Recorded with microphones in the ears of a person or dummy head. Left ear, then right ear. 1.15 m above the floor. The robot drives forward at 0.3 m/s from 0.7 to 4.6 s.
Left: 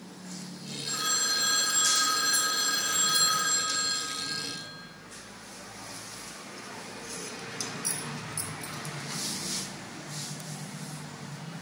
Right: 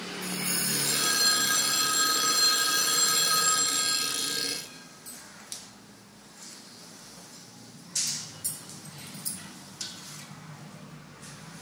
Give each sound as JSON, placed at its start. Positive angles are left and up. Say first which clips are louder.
{"t": 0.8, "sound": "a phone ringing", "louder": "right 3 dB", "side_deg": -20, "distance_m": 2.5}